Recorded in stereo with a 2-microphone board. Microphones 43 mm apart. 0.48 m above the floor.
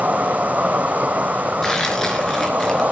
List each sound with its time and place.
0.0 s an insect: 35° right (ahead or behind), 0.9 m
1.6 s tearing paper: 10° left (ahead or behind), 4 m